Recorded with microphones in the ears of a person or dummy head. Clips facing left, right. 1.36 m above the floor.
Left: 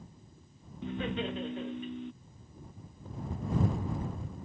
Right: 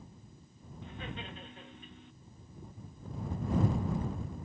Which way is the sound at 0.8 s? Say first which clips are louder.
Left 11 dB; 60° left (ahead or behind).